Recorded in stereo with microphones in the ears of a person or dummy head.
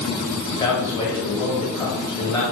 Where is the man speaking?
15° left (ahead or behind), 2 m.